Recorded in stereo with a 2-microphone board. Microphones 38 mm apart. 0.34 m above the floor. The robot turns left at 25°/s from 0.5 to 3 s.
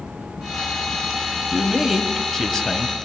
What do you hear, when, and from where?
1.5 s a man speaking: 165° right, 2.5 m; by 3.0 s 155° left, 2.5 m